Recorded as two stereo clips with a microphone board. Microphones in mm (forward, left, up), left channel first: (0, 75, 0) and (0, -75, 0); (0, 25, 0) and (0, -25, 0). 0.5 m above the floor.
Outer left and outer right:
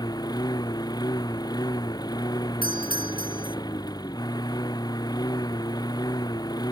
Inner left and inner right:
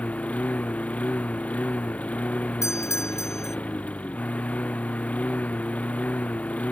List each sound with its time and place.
0.0 s a lawn mower: 25° left (ahead or behind)
2.6 s a doorbell: 75° left (ahead or behind)